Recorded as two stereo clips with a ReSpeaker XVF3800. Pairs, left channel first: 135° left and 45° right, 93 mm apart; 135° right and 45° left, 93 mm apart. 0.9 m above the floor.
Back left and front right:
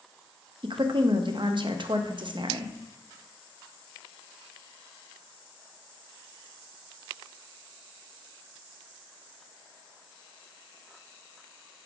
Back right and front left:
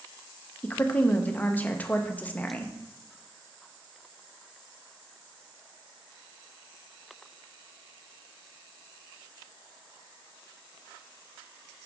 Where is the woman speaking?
65° right, 0.7 m.